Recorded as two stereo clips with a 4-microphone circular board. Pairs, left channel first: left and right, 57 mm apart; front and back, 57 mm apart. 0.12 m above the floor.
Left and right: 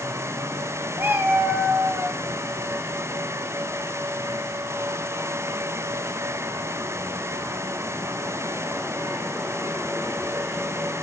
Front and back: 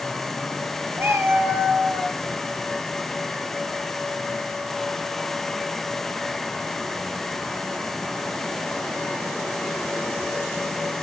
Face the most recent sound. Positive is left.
turn(degrees=-110)